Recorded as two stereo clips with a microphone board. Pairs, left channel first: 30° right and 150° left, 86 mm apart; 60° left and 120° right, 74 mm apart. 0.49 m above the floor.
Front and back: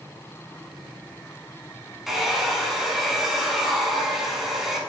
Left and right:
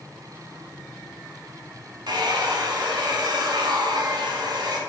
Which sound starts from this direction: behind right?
A hair dryer, at 2.1 s.